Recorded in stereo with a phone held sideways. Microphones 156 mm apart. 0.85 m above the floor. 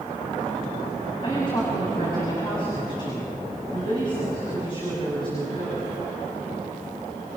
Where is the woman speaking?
35° left (ahead or behind), 6.5 m.